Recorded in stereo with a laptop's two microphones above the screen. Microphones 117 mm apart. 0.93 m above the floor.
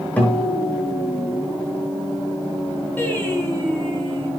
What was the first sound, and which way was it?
A guitar, 15° left (ahead or behind).